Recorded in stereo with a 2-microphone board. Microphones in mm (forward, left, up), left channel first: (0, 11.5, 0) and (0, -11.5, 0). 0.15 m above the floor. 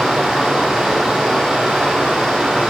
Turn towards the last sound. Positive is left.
turn(degrees=-50)  # may be behind; listen again after turning